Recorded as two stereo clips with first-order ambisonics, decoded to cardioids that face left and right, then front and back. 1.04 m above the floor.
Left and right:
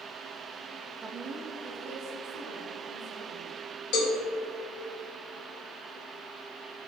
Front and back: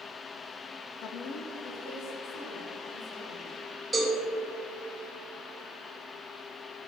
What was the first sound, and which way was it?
A woman speaking, 20° right.